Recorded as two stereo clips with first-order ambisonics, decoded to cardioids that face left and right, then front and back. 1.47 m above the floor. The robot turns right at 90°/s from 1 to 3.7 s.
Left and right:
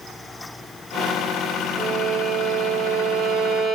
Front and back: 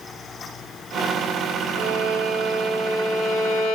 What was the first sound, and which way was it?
A violin, 165° left.